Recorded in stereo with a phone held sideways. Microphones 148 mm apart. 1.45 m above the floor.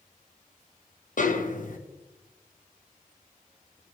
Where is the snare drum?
60° left (ahead or behind), 1.0 m.